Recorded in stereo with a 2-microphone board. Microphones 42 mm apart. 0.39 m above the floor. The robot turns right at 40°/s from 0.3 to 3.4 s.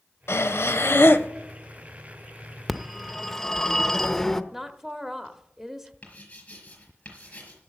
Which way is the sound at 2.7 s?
Centre (ahead or behind).